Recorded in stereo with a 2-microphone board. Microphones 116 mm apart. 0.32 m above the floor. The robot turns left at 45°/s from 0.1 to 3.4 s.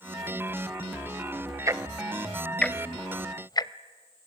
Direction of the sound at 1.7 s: 25° right (ahead or behind).